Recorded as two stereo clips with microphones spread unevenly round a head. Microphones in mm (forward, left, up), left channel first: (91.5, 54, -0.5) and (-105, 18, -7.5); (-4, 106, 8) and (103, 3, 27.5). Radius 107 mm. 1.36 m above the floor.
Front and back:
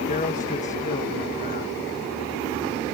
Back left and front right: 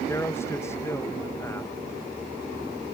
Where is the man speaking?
65° left.